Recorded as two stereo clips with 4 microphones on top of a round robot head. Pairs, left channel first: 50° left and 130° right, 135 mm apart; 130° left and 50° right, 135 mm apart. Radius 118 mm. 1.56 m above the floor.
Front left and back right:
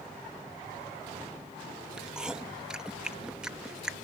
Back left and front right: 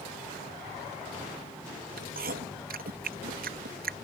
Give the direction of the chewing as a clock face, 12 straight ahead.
1 o'clock.